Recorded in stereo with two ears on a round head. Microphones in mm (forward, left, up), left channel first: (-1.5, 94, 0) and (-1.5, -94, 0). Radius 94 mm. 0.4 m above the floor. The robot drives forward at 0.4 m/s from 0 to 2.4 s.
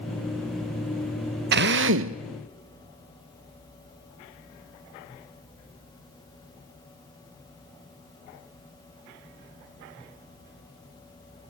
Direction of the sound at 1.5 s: 50° right (ahead or behind).